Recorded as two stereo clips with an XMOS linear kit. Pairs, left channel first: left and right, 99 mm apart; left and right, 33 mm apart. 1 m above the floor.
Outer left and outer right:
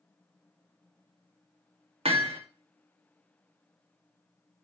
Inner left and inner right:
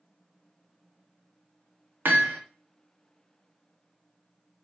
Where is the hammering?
75° right (ahead or behind), 1.8 m.